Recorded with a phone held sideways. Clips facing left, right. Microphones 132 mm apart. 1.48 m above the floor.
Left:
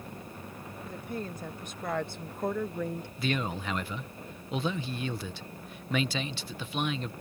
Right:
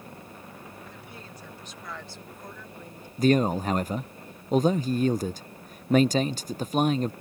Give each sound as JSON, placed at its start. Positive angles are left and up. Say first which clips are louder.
{"t": 0.8, "sound": "a woman speaking", "louder": "left 7 dB", "side_deg": 45}
{"t": 3.2, "sound": "a man speaking", "louder": "right 11 dB", "side_deg": -40}